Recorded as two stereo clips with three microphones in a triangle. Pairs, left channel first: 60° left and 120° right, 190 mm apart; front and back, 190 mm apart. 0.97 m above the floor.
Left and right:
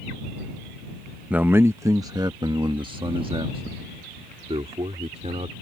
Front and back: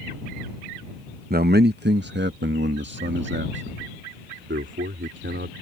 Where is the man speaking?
160° left; by 5.5 s 175° right.